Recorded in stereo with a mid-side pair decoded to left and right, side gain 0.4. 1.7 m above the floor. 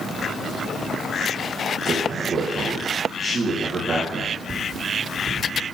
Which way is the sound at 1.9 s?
50° right.